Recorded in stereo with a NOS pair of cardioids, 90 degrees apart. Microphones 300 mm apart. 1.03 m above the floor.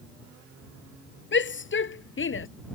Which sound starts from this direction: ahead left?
A shout, at 1.3 s.